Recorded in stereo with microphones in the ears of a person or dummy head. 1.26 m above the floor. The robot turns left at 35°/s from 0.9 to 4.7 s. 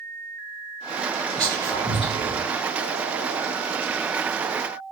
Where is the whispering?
5° left (ahead or behind), 0.8 m; by 2.5 s 35° left (ahead or behind), 0.8 m.